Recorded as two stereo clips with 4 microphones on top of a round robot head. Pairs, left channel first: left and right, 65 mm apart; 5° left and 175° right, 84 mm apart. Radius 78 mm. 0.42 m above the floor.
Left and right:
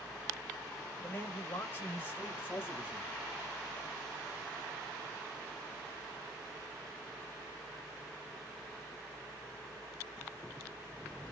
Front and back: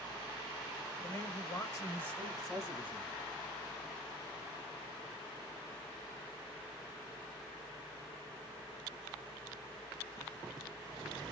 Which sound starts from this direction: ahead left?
A man speaking, at 1.0 s.